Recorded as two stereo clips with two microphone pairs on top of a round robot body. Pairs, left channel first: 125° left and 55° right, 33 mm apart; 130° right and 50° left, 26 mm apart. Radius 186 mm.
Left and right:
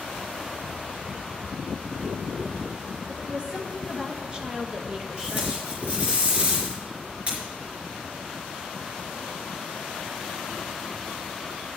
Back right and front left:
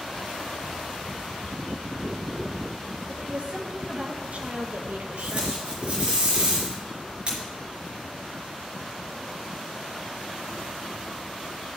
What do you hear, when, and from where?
3.1 s a woman speaking: straight ahead, 3 m; by 5.6 s 25° left, 1.7 m
5.2 s tape being pulled: 5° right, 4 m